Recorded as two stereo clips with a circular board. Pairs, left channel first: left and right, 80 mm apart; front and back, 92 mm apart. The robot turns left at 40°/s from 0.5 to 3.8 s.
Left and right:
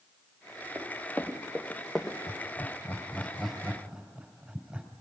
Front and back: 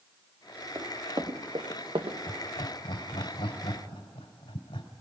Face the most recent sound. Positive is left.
turn(degrees=-15)